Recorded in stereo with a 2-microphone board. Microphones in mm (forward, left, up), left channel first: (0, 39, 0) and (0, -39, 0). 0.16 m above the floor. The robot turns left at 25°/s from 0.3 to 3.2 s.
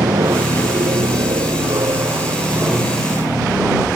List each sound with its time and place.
0.0 s an aircraft: 90° right; by 4.0 s 160° right